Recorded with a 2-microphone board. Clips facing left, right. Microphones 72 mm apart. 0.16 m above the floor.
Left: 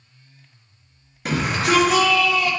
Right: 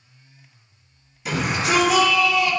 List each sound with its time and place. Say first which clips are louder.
1.2 s a shout: left 2 dB; 60° left (ahead or behind), 3 m; by 2.5 s 55° left (ahead or behind), 2.5 m